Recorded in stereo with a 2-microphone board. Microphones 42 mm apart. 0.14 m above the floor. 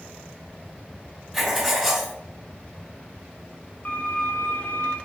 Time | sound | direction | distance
1.3 | writing | centre (ahead or behind) | 1.7 m
3.9 | a violin | 40° left (ahead or behind) | 0.9 m